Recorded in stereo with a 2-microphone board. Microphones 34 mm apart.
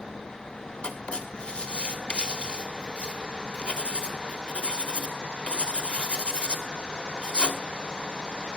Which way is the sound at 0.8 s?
30° left (ahead or behind).